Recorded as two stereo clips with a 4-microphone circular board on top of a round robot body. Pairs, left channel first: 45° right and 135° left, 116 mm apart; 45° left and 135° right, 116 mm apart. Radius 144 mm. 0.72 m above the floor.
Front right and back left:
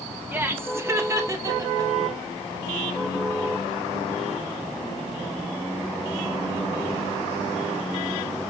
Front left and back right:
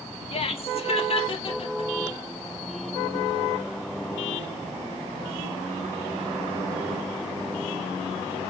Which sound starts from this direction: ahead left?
Laughter, at 0.3 s.